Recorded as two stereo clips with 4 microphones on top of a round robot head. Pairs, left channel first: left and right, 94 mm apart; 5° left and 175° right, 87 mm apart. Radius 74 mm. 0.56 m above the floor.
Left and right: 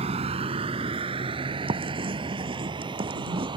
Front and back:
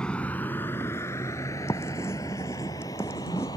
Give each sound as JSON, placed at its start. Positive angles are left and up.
{"t": 0.0, "sound": "a vehicle", "azimuth_deg": -75}
{"t": 1.7, "sound": "writing", "azimuth_deg": -60}